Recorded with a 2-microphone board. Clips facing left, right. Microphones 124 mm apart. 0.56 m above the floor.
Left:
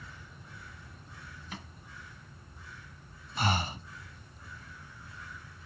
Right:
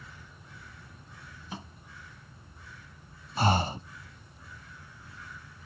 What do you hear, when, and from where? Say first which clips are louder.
1.5 s a microwave: right 4 dB; 25° right (ahead or behind)
3.4 s breathing: right 5 dB; 35° right (ahead or behind)